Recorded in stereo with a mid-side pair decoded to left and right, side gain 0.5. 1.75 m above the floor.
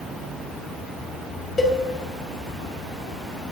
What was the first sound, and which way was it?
A cowbell, 20° left.